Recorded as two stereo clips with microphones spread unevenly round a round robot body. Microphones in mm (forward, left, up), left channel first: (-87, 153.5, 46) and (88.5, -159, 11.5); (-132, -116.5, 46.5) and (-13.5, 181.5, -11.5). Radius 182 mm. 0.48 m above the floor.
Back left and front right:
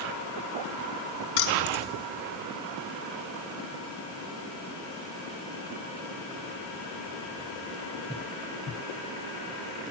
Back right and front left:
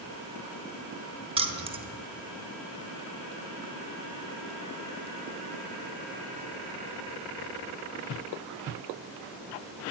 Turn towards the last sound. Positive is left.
turn(degrees=135)